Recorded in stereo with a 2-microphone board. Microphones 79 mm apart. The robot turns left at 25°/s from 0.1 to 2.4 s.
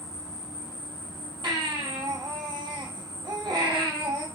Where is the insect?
140° left, 1.2 m; by 4.3 s 80° left, 1.2 m.